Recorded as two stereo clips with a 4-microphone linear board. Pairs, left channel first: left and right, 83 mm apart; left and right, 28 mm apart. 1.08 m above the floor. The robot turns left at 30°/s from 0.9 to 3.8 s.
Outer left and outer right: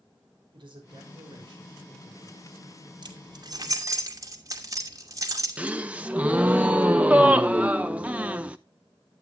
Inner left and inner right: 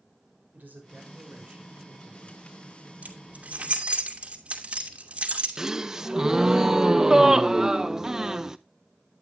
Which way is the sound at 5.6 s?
15° right (ahead or behind).